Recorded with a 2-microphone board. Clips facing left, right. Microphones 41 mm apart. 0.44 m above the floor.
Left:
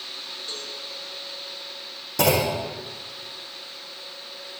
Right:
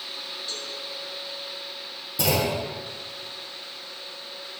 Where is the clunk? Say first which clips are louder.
Left 3 dB; 65° left (ahead or behind), 4.5 m.